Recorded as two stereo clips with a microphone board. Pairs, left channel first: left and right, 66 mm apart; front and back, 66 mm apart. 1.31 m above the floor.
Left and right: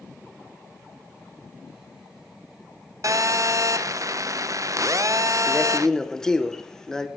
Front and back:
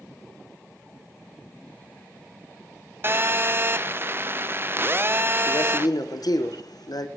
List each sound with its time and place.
3.0 s a phone buzzing: 120° right, 0.6 m
5.5 s a man speaking: 10° left, 1.1 m